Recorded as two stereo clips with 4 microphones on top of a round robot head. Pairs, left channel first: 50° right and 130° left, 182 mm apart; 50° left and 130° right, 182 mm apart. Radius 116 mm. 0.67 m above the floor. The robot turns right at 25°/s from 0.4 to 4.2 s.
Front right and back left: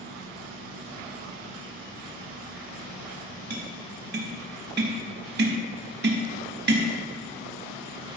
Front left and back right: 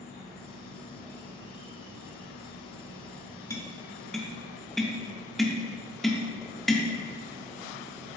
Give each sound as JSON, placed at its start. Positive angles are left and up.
{"t": 0.0, "sound": "an insect", "azimuth_deg": 160, "distance_m": 4.5}
{"t": 3.5, "sound": "tapping", "azimuth_deg": 120, "distance_m": 1.6}